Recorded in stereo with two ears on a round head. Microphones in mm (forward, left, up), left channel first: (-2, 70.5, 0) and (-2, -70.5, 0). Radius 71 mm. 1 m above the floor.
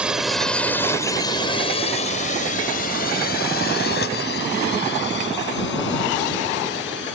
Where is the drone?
5° right (ahead or behind); by 7.2 s 85° left.